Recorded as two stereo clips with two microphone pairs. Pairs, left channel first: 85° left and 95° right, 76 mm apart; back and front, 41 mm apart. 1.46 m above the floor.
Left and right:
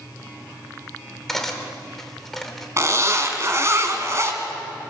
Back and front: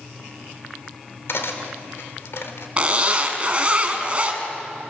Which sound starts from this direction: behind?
Cutlery clinking, at 1.3 s.